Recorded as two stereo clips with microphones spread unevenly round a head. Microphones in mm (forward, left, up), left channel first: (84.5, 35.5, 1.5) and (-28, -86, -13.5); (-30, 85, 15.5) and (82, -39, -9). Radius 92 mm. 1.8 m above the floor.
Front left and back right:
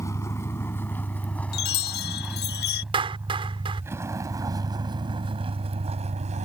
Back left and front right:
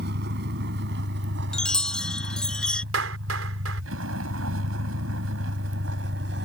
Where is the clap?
75° right.